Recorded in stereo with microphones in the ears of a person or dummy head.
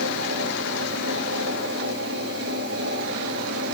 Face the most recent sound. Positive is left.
turn(degrees=-80)